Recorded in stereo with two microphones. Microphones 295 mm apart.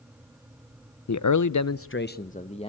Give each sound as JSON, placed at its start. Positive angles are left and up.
{"t": 1.1, "sound": "a man speaking", "side_deg": 65, "distance_m": 0.6}